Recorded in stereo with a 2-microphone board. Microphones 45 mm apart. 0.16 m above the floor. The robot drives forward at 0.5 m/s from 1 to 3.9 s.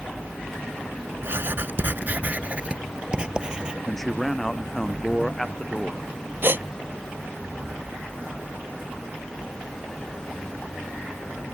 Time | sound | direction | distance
1.2 | writing | 60° right (ahead or behind) | ?
3.9 | a man speaking | 5° left (ahead or behind) | ?
6.4 | a gasp | 55° right (ahead or behind) | ?